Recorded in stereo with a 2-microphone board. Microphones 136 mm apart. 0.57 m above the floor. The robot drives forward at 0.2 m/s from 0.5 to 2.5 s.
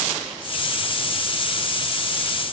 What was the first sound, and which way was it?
Only background noise.